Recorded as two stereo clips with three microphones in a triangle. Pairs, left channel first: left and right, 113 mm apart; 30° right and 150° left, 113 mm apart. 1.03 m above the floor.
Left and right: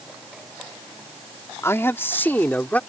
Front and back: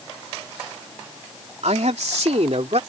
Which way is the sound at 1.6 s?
155° left.